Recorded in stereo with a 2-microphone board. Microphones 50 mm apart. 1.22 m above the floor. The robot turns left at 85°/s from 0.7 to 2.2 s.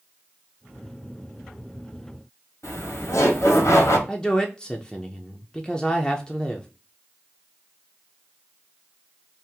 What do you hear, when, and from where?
2.6 s laughter: 75° left (ahead or behind), 1.2 m
4.1 s a man speaking: 15° left (ahead or behind), 0.5 m